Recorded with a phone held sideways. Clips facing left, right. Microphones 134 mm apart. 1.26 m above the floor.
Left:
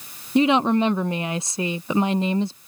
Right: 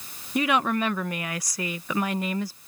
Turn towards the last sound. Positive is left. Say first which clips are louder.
# left 6 dB
turn(degrees=25)  # may be behind; listen again after turning